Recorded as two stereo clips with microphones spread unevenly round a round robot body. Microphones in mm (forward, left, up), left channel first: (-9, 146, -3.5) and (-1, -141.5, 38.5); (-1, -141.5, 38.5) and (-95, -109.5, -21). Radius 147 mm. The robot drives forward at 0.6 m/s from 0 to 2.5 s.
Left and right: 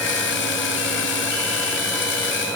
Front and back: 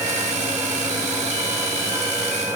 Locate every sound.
Only background noise.